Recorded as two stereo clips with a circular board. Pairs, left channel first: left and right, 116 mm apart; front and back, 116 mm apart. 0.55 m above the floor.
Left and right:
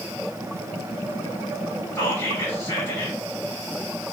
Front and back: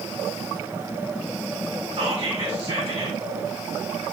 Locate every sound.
1.9 s whispering: 150° left, 2.5 m